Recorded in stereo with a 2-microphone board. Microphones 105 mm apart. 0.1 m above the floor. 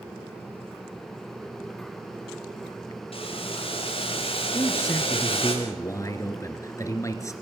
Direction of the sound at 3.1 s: 60° left (ahead or behind).